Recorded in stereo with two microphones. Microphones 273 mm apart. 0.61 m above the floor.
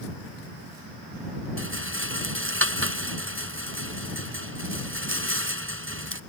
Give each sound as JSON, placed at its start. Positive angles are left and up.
{"t": 1.6, "sound": "a rattle", "side_deg": -50}